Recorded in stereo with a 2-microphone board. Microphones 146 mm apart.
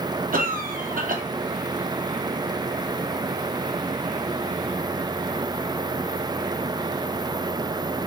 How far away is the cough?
About 0.9 m.